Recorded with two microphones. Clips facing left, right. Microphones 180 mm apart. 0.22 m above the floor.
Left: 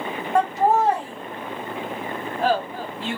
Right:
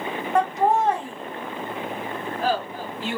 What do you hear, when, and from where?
0.3 s laughter: centre (ahead or behind), 1.6 m; by 3.2 s 30° left (ahead or behind), 2 m